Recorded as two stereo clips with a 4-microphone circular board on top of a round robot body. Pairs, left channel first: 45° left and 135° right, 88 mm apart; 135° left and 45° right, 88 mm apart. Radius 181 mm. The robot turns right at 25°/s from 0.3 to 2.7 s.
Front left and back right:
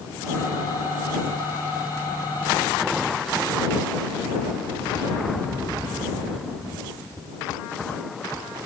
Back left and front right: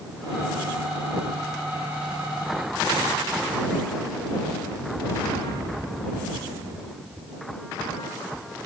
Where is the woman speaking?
No woman speaking in this recording.